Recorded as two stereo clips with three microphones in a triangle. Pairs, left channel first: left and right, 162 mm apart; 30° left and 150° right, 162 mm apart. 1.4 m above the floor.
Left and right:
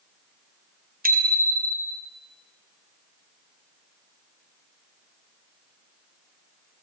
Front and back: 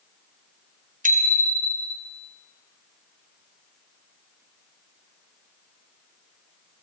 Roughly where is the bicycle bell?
Behind right.